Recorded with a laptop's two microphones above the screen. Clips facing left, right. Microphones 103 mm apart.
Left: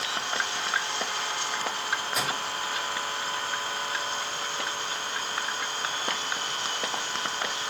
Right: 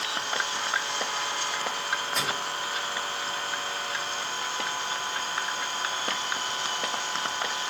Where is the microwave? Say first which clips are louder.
Left 1 dB; 5° left (ahead or behind), 2 m.